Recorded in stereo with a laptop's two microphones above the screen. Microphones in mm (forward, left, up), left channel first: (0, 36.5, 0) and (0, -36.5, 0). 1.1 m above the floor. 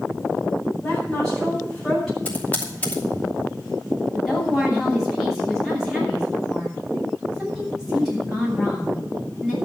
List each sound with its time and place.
0.8 s a woman speaking: 5° left (ahead or behind), 8 m
2.2 s typing on a keyboard: 20° left (ahead or behind), 2.5 m
4.1 s a woman speaking: 5° right (ahead or behind), 7.5 m